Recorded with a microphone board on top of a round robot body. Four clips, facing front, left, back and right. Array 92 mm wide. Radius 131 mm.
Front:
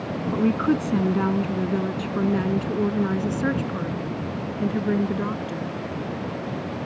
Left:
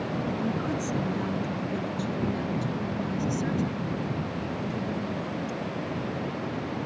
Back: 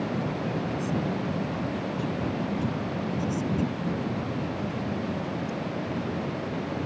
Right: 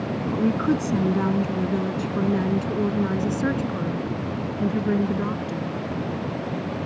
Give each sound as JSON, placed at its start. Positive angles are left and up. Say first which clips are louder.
{"t": 0.3, "sound": "a woman speaking", "louder": "right 7 dB, front 9 dB", "azimuth_deg": -25}